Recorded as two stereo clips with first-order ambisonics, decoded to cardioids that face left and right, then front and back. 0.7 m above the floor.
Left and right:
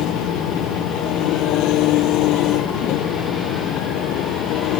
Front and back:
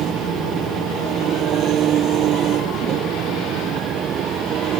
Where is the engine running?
130° left.